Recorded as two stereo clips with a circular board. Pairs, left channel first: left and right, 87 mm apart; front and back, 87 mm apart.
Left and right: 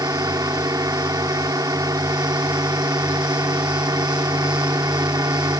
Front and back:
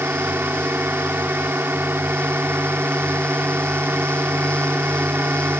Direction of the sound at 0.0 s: 120° right.